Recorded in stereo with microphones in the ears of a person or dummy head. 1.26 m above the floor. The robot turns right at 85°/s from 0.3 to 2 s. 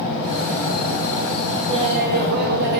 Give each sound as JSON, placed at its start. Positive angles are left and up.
{"t": 1.7, "sound": "laughter", "side_deg": -20, "distance_m": 1.1}